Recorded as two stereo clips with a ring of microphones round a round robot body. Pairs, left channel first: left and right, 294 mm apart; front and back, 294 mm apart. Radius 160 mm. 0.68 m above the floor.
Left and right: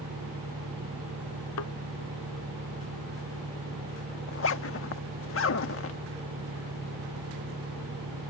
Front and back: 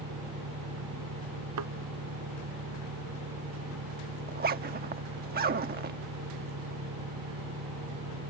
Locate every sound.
0.0 s an engine running: 145° right
1.6 s a thud: 135° left
4.3 s a zipper: 125° left